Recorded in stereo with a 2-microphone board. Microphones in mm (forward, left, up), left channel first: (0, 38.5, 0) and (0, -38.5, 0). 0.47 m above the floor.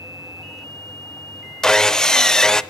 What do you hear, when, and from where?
1.6 s sawing: 10° left (ahead or behind), 0.6 m